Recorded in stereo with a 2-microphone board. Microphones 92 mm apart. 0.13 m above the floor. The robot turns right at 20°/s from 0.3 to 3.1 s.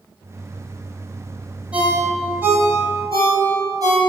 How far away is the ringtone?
About 1.8 m.